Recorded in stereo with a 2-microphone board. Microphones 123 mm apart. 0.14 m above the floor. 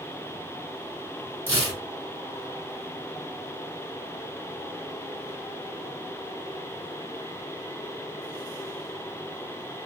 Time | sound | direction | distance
1.5 | tearing paper | 15° left (ahead or behind) | 1.5 m